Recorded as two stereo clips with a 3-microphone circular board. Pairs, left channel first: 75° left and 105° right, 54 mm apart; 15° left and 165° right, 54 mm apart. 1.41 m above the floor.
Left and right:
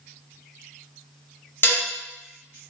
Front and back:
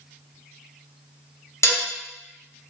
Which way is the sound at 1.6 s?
30° left.